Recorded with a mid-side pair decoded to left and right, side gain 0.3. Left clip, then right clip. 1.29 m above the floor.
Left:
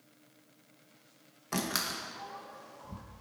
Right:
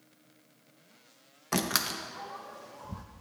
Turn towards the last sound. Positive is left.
turn(degrees=-55)